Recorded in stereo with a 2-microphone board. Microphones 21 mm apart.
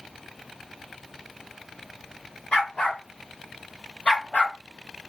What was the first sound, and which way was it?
A dog barking, 45° left (ahead or behind).